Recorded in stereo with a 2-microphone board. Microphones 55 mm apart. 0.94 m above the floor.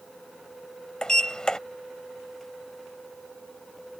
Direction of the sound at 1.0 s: 15° left (ahead or behind).